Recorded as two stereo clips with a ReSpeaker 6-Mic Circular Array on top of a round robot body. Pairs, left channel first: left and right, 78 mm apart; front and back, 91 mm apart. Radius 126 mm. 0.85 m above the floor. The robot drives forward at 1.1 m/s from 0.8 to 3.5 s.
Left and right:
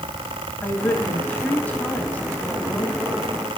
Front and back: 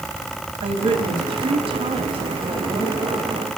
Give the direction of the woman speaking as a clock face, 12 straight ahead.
7 o'clock.